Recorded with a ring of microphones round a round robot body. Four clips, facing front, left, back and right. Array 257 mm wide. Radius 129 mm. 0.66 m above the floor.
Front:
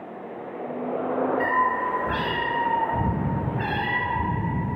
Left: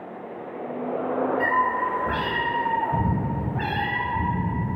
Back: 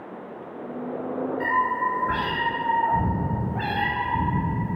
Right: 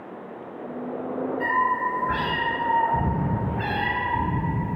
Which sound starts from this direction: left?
A cat meowing, at 1.4 s.